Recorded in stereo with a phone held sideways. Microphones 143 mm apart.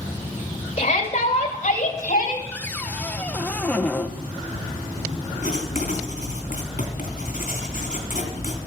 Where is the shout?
45° left (ahead or behind), 4 m; by 2.4 s 60° left (ahead or behind), 3 m.